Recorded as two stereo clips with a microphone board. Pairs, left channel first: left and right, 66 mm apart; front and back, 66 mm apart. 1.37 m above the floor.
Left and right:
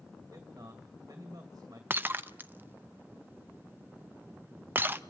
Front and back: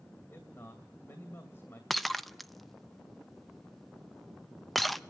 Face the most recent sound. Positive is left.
turn(degrees=-90)